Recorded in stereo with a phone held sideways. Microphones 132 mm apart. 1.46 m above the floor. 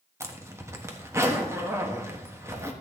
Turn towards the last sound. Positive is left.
turn(degrees=-20)  # may be behind; listen again after turning